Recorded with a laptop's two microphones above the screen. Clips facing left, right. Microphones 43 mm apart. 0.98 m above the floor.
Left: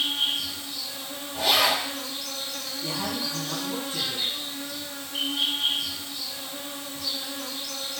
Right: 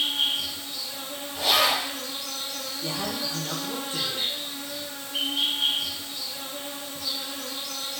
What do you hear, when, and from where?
0.0 s an insect: 25° right (ahead or behind), 1.0 m
1.3 s a zipper: 25° left (ahead or behind), 1.5 m
2.8 s a man speaking: 45° right (ahead or behind), 1.0 m